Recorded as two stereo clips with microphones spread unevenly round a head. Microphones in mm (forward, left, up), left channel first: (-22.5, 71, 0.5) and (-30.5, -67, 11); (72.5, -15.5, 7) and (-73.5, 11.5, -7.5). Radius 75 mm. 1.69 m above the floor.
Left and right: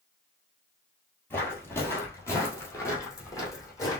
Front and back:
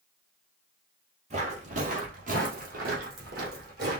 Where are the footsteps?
160° left, 2.0 m; by 4.0 s 150° left, 3 m.